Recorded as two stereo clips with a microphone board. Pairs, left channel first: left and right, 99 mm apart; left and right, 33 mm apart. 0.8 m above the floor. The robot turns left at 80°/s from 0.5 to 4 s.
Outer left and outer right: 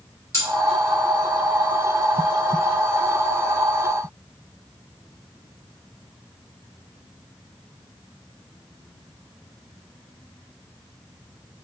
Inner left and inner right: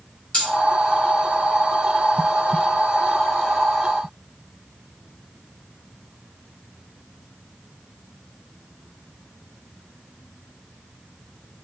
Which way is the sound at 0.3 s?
30° left (ahead or behind).